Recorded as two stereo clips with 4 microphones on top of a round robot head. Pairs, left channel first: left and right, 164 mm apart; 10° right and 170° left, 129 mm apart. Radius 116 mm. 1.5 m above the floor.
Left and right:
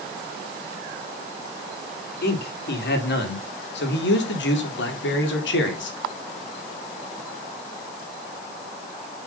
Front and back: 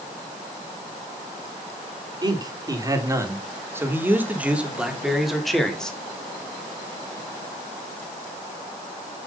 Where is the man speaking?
110° left, 4.5 m; by 6.0 s 75° left, 4 m.